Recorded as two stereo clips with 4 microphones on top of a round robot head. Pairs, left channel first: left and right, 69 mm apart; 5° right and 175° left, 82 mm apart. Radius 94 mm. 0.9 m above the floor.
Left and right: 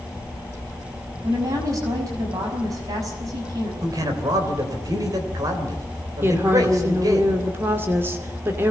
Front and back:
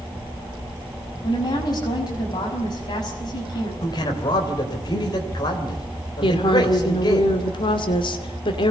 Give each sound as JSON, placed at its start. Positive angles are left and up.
{"t": 1.2, "sound": "a woman speaking", "azimuth_deg": -50, "distance_m": 5.5}
{"t": 3.8, "sound": "a man speaking", "azimuth_deg": -50, "distance_m": 3.5}
{"t": 6.2, "sound": "a woman speaking", "azimuth_deg": -30, "distance_m": 2.5}